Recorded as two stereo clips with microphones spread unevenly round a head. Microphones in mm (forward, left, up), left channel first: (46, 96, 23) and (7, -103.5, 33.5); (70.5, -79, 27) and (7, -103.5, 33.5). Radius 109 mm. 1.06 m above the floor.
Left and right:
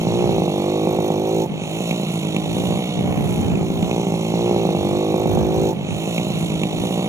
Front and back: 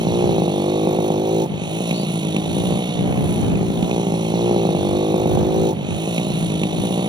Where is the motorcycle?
Straight behind.